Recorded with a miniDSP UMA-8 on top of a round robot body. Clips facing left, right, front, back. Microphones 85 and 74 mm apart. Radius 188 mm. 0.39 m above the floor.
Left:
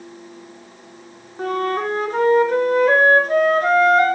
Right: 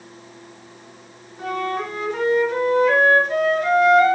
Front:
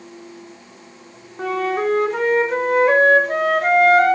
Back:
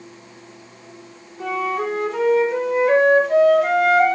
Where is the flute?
45° left, 2.5 m.